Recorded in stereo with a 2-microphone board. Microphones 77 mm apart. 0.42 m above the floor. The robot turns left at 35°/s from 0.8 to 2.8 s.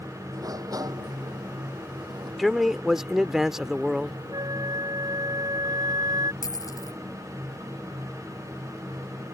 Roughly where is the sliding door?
Ahead right.